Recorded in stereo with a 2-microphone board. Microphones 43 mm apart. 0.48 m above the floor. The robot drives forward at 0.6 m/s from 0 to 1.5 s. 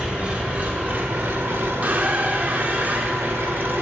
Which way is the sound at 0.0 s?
25° right (ahead or behind).